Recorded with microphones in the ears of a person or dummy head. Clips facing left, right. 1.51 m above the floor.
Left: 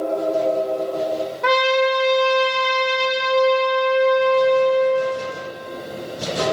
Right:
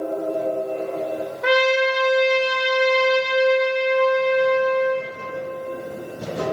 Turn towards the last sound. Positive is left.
turn(degrees=0)  # may be behind; listen again after turning